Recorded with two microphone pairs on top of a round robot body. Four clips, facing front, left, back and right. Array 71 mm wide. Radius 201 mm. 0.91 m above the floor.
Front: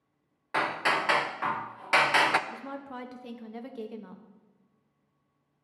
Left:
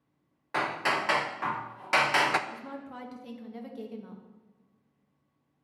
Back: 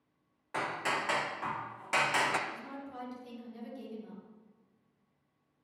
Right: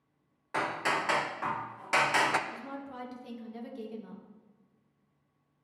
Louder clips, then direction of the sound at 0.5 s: Left 2 dB, front 6 dB; 25° left.